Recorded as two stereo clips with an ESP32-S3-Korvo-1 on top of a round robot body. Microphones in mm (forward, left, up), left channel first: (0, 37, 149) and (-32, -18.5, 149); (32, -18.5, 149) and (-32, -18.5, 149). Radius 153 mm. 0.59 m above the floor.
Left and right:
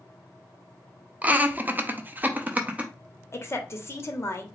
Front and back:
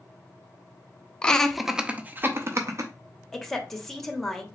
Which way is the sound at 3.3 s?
80° left.